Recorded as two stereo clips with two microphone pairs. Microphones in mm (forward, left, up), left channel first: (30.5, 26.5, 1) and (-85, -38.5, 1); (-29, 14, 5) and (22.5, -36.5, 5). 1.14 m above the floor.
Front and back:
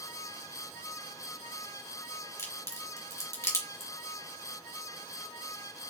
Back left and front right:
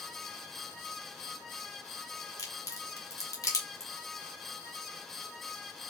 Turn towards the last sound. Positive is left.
turn(degrees=100)